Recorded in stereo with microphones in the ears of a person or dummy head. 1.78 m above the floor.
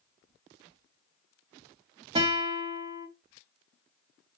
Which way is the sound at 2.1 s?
25° right (ahead or behind).